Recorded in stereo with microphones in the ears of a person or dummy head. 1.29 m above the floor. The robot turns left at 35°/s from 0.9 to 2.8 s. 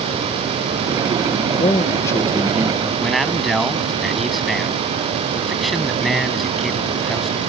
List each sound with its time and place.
1.6 s a man speaking: 30° left; by 2.9 s 10° right
3.0 s a man speaking: centre (ahead or behind)